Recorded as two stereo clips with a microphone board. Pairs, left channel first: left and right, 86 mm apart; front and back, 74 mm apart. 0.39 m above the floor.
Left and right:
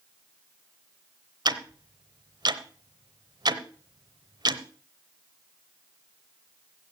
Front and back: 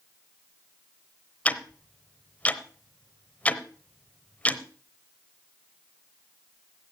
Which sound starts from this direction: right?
Ticking, at 1.4 s.